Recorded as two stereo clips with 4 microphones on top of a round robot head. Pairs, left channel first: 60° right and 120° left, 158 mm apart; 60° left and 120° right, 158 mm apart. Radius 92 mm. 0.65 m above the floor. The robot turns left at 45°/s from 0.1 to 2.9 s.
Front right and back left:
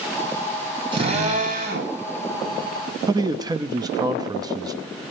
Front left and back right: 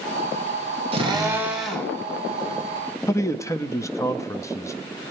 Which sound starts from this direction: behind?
A drill, at 0.9 s.